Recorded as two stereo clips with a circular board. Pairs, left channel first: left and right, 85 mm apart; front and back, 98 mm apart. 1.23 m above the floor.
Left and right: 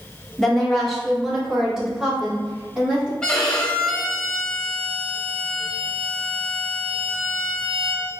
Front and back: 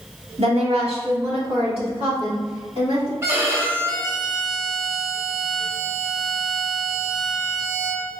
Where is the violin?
160° left, 1.1 m.